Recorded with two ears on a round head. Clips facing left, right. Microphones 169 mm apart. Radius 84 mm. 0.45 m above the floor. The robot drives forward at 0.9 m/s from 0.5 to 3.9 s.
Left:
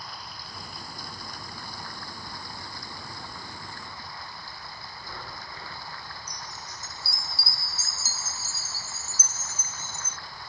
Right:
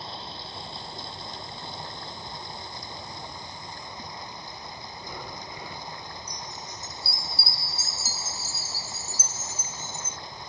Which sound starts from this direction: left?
A chime, at 6.3 s.